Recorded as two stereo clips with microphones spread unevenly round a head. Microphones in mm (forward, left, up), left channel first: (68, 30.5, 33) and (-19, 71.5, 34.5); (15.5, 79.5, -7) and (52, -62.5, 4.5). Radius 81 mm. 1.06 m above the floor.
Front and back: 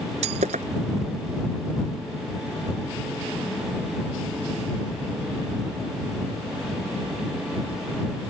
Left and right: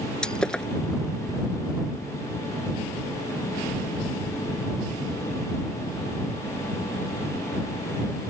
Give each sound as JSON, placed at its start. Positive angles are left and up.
{"t": 0.2, "sound": "breaking glass", "azimuth_deg": -170}